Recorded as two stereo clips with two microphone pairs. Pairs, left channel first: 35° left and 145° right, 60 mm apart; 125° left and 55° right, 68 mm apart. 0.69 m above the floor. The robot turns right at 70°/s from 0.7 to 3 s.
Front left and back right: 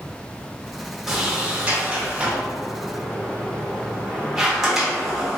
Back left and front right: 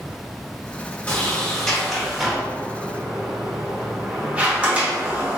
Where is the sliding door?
150° left, 0.8 m; by 5.4 s 75° right, 0.8 m.